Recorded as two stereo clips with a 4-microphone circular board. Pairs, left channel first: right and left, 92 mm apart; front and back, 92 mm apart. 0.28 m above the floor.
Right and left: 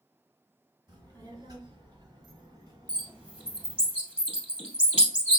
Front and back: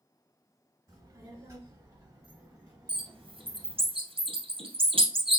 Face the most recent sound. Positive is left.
turn(degrees=170)